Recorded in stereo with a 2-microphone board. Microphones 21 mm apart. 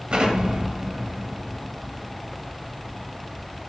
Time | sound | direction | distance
0.1 | an explosion | 50° right (ahead or behind) | 1.5 m